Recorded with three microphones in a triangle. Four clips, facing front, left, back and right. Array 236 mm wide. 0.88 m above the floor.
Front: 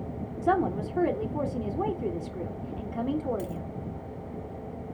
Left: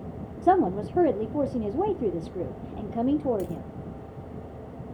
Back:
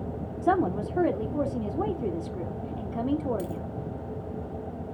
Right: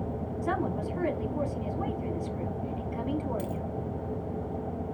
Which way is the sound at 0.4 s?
90° left.